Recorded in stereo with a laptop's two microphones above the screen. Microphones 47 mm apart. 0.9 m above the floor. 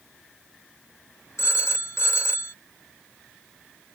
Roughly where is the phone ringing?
Left.